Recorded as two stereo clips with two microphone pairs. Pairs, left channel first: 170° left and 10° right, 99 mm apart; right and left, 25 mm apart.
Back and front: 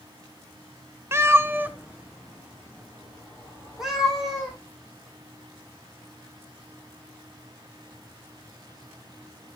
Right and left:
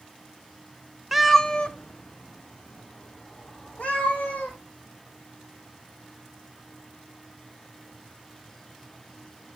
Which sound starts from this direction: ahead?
A cat meowing, at 1.1 s.